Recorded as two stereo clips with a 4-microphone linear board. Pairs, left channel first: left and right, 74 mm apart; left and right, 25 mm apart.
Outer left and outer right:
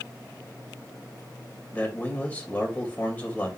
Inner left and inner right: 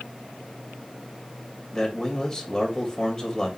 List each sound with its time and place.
1.7 s a man speaking: 20° left (ahead or behind), 3 m